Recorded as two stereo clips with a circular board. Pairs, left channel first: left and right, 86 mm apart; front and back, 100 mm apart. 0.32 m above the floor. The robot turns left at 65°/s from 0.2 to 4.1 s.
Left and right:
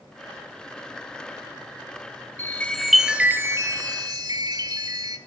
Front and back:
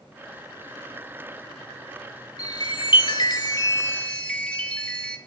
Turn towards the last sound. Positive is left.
turn(degrees=-80)